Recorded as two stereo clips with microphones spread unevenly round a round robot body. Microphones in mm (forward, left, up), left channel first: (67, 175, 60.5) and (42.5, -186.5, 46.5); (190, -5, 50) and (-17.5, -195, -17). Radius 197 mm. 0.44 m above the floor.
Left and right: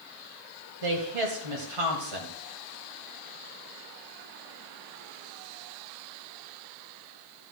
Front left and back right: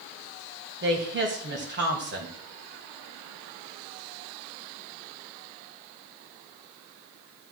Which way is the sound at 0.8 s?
95° right.